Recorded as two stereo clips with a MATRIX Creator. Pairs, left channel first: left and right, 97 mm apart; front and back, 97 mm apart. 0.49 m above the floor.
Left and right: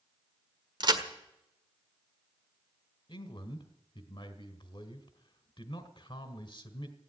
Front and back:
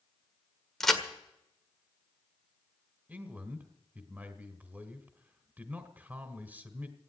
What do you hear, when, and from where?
0.8 s a crack: 85° right, 1.5 m
3.1 s a man speaking: 110° left, 1.6 m